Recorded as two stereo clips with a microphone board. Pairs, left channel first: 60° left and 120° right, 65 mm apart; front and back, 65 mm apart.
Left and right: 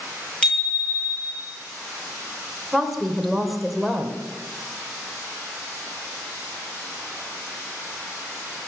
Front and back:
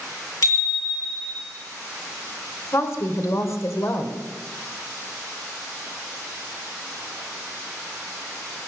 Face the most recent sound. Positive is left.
turn(degrees=-30)